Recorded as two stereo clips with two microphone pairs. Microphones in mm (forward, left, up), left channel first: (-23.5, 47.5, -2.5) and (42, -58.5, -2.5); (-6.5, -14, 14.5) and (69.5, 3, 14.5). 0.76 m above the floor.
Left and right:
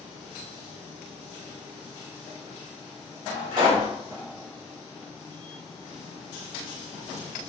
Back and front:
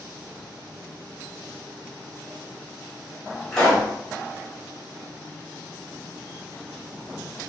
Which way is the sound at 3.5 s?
90° right.